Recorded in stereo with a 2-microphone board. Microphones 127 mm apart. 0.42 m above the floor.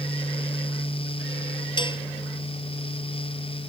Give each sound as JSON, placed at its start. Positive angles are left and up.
{"t": 1.8, "sound": "dishes clattering", "side_deg": 40}